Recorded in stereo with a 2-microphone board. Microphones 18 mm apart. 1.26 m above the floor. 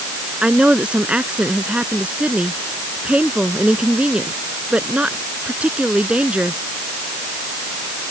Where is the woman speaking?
80° right.